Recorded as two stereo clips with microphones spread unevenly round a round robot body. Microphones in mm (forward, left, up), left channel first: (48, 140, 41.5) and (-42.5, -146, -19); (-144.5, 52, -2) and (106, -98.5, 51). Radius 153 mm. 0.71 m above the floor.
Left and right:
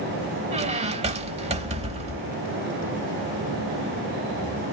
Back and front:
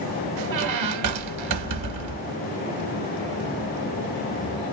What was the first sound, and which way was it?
A squeak, 35° right.